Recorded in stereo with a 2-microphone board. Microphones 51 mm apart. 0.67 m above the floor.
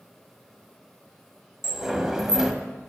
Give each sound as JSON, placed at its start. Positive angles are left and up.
{"t": 1.6, "sound": "a sliding door", "side_deg": -10, "distance_m": 0.7}